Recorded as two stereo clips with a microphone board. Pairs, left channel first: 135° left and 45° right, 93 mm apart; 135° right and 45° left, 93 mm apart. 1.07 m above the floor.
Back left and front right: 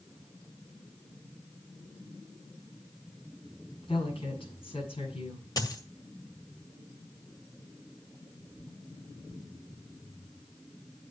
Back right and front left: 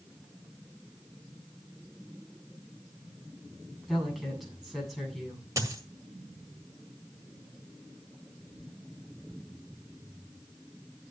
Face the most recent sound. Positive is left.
turn(degrees=95)